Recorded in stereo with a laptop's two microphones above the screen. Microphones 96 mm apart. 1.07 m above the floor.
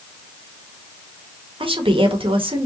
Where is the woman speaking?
75° right (ahead or behind), 1.4 m.